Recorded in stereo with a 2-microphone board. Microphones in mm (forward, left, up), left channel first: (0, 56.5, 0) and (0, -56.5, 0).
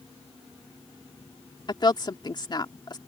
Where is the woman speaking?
40° left (ahead or behind).